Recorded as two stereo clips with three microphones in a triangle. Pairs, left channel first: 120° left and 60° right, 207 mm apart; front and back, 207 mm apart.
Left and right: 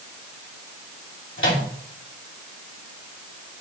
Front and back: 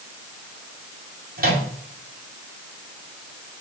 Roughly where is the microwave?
Behind left.